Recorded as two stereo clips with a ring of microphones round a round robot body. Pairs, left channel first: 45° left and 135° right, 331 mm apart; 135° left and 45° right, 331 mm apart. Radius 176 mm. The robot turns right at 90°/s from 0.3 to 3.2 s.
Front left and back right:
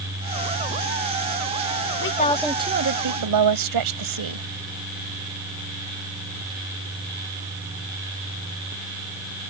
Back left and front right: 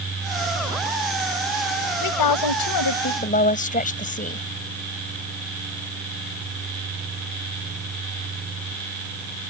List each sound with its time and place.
2.0 s a woman speaking: 95° left; by 4.5 s 160° right